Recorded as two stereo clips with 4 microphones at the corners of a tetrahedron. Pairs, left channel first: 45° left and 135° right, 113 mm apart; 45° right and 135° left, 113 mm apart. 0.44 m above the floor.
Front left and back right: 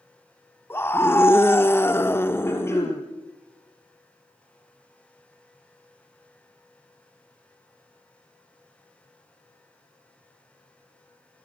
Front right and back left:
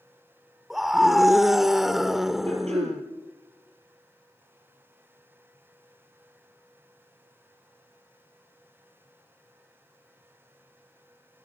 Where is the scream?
50° left, 1.0 m.